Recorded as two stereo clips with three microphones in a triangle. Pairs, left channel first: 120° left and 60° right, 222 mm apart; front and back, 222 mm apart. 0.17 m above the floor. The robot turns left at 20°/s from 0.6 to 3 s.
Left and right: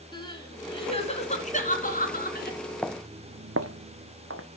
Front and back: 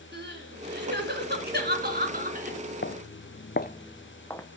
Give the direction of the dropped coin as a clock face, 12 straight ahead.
No dropped coin in this recording.